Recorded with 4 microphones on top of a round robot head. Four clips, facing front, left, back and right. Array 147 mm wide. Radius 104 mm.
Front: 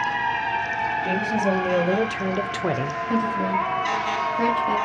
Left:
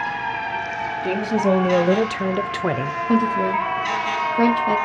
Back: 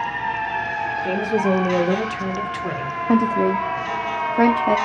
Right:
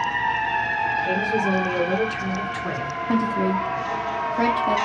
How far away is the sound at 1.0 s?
About 1.5 m.